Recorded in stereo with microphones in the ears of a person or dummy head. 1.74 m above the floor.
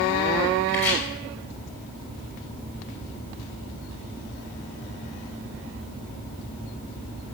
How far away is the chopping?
About 6.5 m.